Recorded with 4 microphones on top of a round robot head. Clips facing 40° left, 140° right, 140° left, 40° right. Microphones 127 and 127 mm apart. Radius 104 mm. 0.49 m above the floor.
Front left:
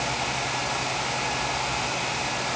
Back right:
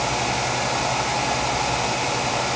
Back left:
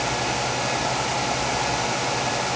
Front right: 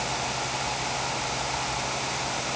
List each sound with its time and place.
Only background noise.